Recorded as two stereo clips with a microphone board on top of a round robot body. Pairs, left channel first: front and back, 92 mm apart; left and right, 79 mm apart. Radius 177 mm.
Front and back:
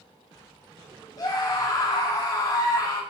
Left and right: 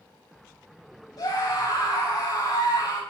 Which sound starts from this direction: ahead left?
A scream, at 1.2 s.